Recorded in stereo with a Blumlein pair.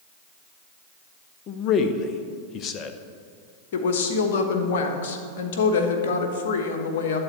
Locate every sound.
1.5 s a man speaking: 30° left, 0.9 m
3.7 s a woman speaking: 55° left, 1.3 m